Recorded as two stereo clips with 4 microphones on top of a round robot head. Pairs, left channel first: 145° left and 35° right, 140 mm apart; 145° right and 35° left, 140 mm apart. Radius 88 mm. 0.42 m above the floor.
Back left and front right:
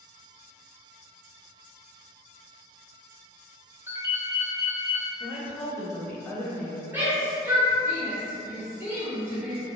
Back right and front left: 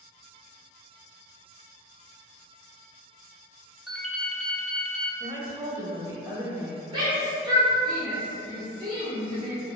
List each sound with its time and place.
3.9 s a ringtone: 55° right, 0.7 m
5.2 s a woman speaking: 85° left, 0.9 m
6.9 s a shout: 25° left, 1.1 m